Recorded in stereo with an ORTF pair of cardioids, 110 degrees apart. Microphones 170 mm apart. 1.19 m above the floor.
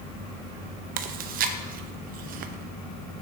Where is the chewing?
55° right, 0.7 m.